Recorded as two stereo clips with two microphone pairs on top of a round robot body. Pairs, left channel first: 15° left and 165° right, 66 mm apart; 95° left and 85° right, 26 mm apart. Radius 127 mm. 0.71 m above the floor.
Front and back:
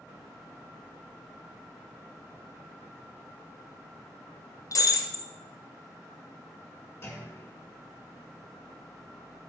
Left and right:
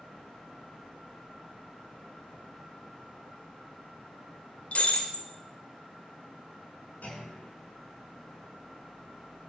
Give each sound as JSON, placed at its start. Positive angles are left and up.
{"t": 4.7, "sound": "breaking glass", "azimuth_deg": 50, "distance_m": 1.8}
{"t": 7.0, "sound": "a clunk", "azimuth_deg": 65, "distance_m": 6.5}